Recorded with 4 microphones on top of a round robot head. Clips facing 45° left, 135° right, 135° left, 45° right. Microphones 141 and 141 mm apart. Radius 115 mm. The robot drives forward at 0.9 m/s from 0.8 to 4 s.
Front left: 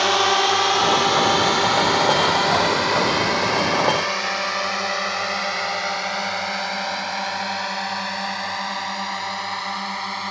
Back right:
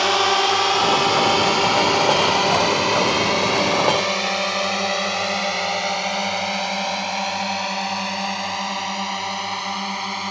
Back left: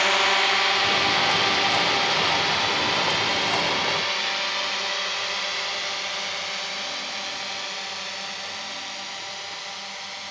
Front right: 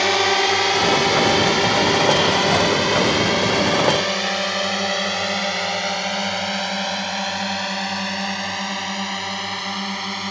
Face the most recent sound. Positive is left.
turn(degrees=-65)